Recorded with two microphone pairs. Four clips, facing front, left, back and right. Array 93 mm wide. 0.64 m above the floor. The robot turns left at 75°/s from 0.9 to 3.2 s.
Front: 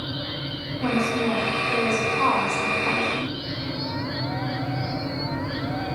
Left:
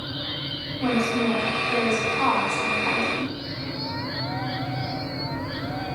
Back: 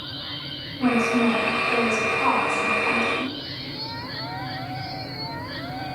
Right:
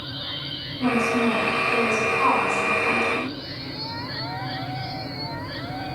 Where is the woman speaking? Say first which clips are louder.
Right 2 dB, back 3 dB; 155° right, 4 m; by 3.3 s 35° left, 4 m.